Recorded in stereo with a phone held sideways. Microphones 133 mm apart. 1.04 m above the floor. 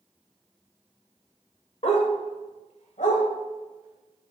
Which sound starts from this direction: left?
A dog barking, at 1.8 s.